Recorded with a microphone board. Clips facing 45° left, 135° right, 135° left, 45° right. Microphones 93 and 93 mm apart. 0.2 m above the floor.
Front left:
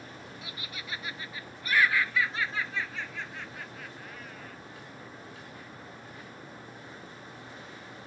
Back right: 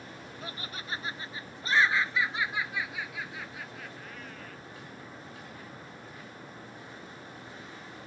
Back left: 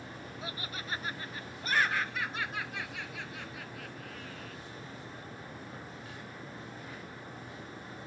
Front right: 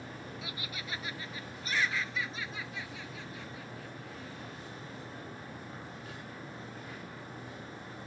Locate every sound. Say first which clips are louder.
0.4 s laughter: back right 2 dB, back left 2 dB; straight behind; by 4.6 s 130° left